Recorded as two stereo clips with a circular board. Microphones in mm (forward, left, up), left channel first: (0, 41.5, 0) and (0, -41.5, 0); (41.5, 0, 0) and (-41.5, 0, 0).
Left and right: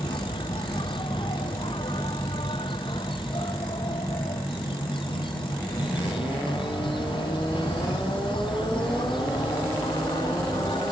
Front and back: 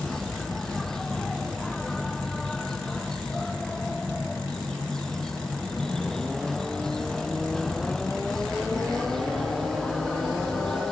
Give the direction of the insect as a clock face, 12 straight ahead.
9 o'clock.